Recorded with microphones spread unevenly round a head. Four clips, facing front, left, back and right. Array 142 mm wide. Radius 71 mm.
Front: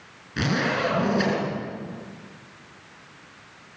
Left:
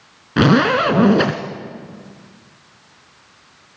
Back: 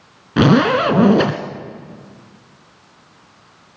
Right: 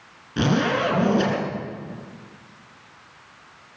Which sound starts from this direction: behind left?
A zipper, at 0.4 s.